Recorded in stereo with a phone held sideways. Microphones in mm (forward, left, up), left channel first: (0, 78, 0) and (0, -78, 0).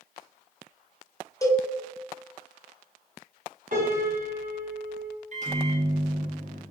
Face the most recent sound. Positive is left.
turn(degrees=-50)  # may be behind; listen again after turning